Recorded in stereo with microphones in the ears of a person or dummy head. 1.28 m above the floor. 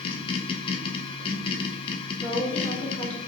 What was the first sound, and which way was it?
A machine running, 25° left (ahead or behind).